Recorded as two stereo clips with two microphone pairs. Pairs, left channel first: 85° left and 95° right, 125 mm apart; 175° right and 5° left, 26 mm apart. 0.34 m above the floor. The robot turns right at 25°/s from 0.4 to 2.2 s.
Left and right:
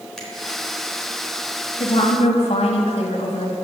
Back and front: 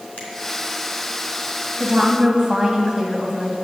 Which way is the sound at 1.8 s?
65° left.